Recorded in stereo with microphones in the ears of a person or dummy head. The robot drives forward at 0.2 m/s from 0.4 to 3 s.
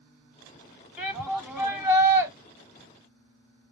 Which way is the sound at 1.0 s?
10° right (ahead or behind).